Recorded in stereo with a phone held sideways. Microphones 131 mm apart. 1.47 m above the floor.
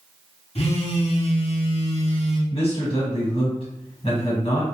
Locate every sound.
0.6 s a phone buzzing: 50° left (ahead or behind), 0.6 m
2.5 s a man speaking: 45° left (ahead or behind), 1.4 m